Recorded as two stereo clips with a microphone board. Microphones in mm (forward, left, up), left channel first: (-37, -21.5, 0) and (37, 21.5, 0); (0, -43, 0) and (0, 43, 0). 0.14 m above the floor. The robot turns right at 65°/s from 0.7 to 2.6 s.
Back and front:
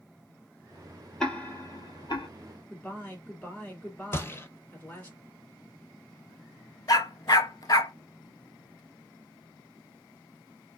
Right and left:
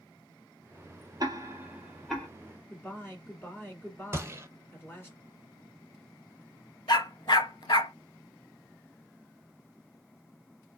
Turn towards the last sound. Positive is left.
turn(degrees=-115)